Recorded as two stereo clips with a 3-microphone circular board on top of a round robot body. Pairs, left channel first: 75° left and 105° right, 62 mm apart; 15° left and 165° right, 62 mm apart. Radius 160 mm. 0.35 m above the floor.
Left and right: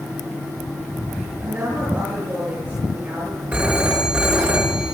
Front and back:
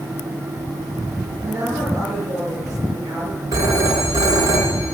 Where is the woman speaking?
160° right, 8 m.